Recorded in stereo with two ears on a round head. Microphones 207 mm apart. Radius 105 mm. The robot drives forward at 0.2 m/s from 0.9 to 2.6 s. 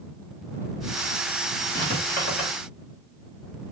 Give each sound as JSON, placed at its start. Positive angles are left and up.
{"t": 1.8, "sound": "writing", "side_deg": 40, "distance_m": 1.7}